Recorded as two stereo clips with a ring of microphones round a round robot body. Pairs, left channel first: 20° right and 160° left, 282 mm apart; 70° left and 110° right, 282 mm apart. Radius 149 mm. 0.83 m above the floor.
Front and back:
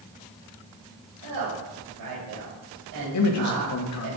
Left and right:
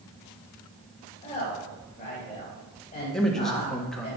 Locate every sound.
1.2 s a woman speaking: 135° left, 3.5 m
3.1 s a man speaking: 20° right, 1.6 m